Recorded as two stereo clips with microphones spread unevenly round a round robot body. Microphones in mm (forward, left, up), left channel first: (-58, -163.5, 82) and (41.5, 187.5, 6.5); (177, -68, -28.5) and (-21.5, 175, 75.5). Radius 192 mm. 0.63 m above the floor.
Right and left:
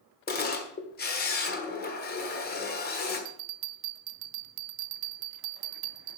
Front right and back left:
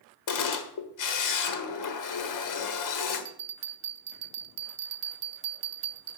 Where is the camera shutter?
35° right, 1.5 m.